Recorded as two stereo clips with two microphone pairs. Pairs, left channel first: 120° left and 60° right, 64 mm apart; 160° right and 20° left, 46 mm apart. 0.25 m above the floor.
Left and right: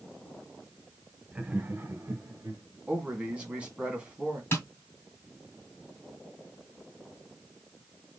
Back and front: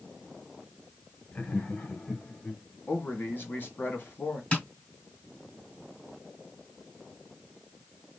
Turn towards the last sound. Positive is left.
turn(degrees=155)